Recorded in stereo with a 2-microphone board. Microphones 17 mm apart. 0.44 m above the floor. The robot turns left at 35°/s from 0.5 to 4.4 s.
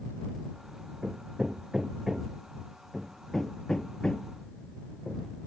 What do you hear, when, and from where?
1.0 s hammering: 55° right (ahead or behind); by 5.3 s 60° left (ahead or behind)